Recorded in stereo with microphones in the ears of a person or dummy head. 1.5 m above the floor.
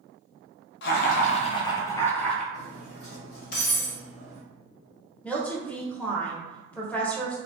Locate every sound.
0.8 s laughter: 65° left (ahead or behind), 0.7 m; by 2.4 s 5° left (ahead or behind), 1.0 m
2.5 s cutlery clinking: 55° left (ahead or behind), 1.4 m
5.2 s a woman speaking: 10° left (ahead or behind), 0.8 m